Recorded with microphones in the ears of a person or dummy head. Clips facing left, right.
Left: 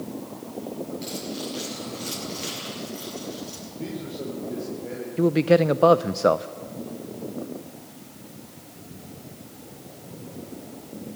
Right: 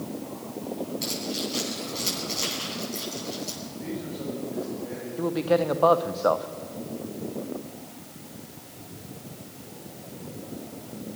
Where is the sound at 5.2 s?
40° left (ahead or behind), 0.7 m.